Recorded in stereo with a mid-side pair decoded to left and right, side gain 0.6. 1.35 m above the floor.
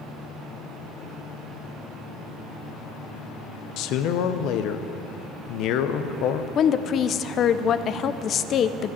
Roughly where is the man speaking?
Ahead left.